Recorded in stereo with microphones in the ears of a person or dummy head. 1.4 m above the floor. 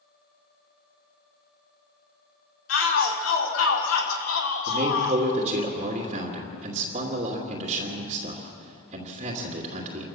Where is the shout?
85° left, 3.5 m; by 5.2 s 60° left (ahead or behind), 2.5 m.